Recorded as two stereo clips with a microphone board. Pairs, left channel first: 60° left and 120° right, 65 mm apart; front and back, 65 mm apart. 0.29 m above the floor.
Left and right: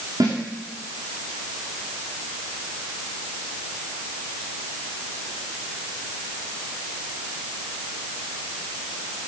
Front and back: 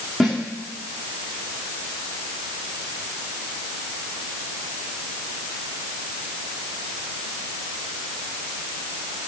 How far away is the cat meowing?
I don't hear a cat meowing.